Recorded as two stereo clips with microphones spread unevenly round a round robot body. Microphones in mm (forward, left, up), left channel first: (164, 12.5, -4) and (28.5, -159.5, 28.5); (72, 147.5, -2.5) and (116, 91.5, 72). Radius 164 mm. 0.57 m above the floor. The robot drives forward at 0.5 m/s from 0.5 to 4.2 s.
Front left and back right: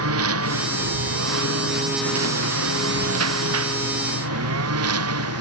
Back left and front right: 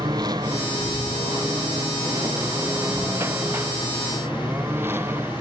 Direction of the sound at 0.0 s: 125° right.